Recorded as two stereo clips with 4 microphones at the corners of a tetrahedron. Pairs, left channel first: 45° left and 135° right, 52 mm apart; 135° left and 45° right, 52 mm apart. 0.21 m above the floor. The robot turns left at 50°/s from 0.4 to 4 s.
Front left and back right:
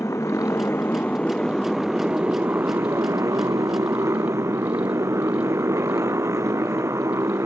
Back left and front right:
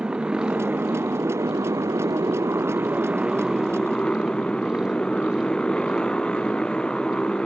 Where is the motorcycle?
25° left; by 7.5 s 155° right.